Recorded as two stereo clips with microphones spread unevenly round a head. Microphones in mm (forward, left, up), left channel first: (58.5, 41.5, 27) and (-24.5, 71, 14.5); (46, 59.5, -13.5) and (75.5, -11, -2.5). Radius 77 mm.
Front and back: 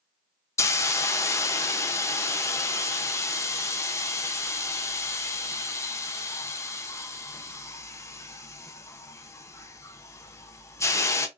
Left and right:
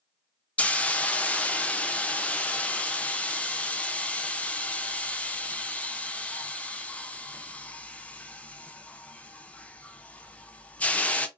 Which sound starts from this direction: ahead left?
A hiss, at 0.6 s.